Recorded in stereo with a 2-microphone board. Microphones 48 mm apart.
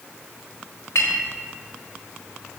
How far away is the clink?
About 1.2 m.